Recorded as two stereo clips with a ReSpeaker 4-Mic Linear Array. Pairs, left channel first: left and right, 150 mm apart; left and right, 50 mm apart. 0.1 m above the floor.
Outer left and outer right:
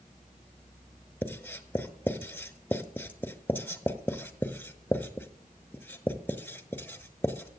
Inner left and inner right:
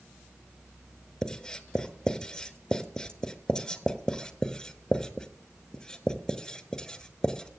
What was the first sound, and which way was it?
Writing, 10° left (ahead or behind).